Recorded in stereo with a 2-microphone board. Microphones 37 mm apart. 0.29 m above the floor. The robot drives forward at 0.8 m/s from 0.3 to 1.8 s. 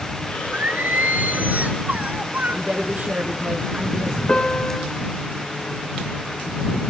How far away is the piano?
About 2.5 m.